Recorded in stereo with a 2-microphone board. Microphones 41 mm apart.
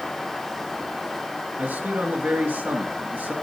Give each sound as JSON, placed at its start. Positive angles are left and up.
{"t": 1.6, "sound": "a man speaking", "side_deg": -55, "distance_m": 3.0}